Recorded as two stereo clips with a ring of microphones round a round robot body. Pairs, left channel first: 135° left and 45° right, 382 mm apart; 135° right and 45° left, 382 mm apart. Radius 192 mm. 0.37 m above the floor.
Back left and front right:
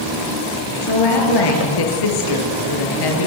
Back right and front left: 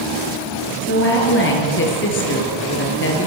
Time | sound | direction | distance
0.8 | a woman speaking | 165° left | 6.5 m